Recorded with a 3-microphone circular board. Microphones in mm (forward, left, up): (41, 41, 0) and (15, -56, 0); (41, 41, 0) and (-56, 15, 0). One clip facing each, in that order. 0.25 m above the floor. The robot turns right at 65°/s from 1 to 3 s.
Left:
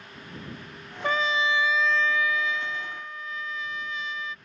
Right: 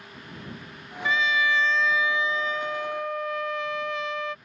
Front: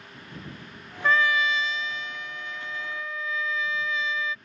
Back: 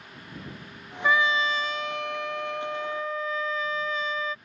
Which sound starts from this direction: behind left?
A trumpet, at 1.0 s.